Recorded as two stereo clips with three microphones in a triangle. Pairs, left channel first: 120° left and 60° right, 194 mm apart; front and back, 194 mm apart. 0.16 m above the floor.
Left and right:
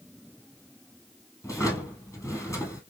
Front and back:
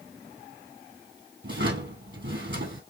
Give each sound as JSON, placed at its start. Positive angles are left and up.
{"t": 1.4, "sound": "a drawer", "azimuth_deg": -165, "distance_m": 1.6}